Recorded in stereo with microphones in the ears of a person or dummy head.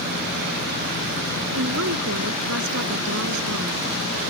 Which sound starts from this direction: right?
A woman speaking, at 1.5 s.